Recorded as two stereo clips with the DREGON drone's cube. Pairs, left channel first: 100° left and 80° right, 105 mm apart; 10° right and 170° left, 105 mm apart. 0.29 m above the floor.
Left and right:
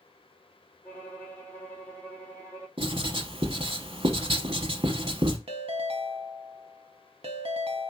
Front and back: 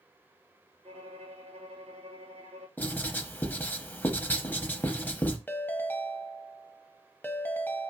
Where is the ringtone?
80° right, 0.6 m.